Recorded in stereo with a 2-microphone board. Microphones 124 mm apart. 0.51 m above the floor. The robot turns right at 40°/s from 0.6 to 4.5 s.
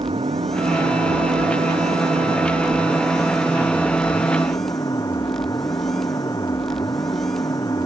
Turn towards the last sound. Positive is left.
turn(degrees=30)